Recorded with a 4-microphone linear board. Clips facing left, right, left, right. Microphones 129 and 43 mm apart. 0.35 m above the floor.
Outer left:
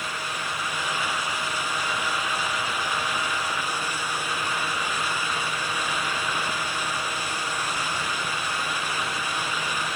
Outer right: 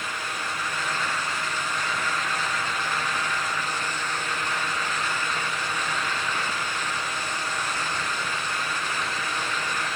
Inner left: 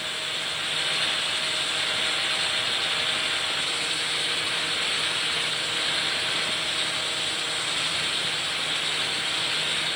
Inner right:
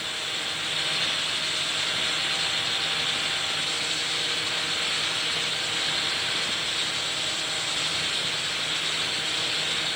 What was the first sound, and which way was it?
Only background noise.